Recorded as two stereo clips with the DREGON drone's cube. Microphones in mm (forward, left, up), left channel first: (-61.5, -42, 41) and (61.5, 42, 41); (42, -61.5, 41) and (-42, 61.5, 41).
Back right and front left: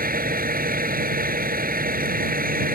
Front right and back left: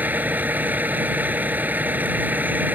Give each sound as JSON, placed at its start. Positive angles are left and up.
{"t": 0.0, "sound": "a vehicle", "azimuth_deg": 45}